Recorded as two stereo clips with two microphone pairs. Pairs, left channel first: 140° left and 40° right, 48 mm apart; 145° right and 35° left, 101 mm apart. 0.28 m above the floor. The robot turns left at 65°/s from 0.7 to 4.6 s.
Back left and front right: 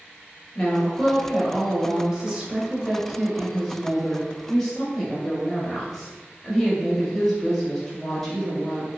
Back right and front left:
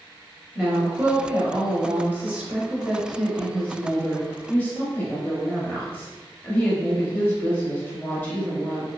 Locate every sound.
0.6 s a woman speaking: 100° left, 0.9 m; by 8.9 s 155° right, 0.9 m